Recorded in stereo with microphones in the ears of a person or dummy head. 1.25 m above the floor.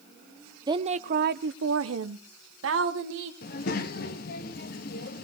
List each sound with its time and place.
0.7 s a woman speaking: 20° right (ahead or behind), 0.7 m; by 3.3 s 65° right (ahead or behind), 1.8 m
3.4 s a child speaking: 50° left (ahead or behind), 1.3 m